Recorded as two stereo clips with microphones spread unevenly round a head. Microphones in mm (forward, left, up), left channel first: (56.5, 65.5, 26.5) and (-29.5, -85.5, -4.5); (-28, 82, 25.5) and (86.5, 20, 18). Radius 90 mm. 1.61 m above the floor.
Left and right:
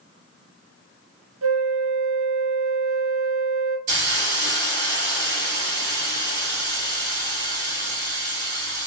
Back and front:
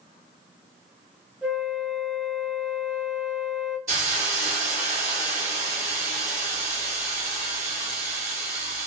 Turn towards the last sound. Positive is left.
turn(degrees=-105)